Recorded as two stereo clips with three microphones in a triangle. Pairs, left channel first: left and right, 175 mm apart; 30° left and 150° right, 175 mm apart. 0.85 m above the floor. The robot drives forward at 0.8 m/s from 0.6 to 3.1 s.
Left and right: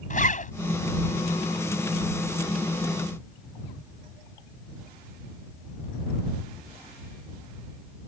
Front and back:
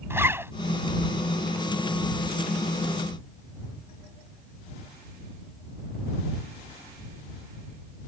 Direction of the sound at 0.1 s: 135° left.